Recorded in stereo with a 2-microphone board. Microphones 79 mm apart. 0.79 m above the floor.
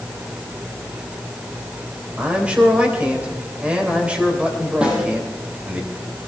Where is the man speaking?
15° right (ahead or behind), 3.5 m.